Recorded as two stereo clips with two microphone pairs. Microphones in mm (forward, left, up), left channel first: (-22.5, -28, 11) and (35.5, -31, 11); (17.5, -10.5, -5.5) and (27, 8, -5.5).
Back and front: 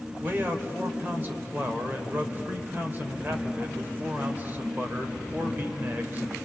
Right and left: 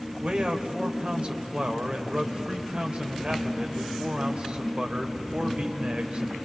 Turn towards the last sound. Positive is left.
turn(degrees=45)